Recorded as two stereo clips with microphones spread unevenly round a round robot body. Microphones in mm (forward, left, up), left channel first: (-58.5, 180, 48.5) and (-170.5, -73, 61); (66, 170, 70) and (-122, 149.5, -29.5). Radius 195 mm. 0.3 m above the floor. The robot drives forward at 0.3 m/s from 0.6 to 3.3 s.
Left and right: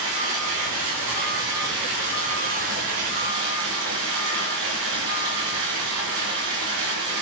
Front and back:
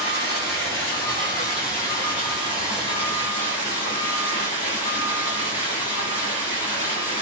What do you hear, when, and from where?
0.0 s running water: 85° right, 3.5 m; by 7.2 s 100° right, 3.5 m